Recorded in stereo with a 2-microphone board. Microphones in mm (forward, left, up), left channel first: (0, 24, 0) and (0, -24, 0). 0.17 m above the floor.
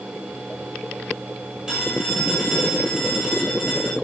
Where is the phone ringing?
15° right (ahead or behind), 10 m.